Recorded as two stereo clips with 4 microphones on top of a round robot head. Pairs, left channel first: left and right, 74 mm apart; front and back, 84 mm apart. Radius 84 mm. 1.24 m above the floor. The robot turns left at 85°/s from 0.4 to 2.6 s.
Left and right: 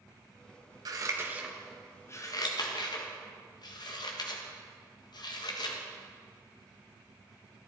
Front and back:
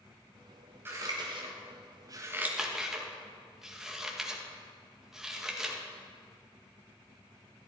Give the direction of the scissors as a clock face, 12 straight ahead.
4 o'clock.